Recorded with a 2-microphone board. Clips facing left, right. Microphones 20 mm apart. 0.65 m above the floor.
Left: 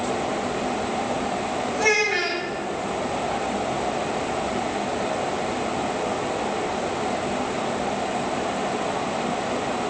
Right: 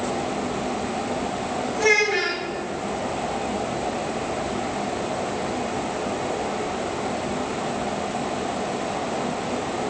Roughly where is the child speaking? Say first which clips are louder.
Right 2 dB; centre.